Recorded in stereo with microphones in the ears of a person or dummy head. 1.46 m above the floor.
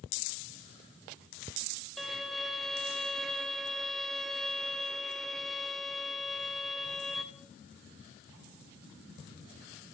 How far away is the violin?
About 0.6 m.